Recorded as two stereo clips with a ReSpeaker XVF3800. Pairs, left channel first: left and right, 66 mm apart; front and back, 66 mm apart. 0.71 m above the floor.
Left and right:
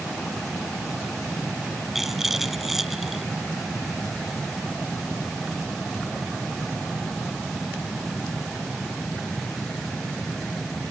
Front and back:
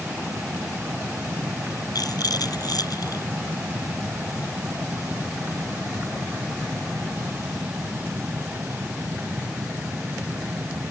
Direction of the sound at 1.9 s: 5° right.